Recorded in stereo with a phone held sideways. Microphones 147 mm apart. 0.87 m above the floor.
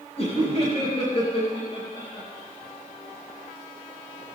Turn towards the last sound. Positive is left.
turn(degrees=35)  # may be behind; listen again after turning